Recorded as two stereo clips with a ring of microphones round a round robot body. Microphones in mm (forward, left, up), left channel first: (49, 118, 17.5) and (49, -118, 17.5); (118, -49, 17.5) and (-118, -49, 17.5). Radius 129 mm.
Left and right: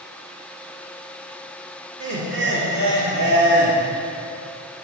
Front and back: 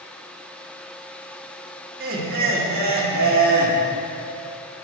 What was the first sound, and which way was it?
Laughter, 130° right.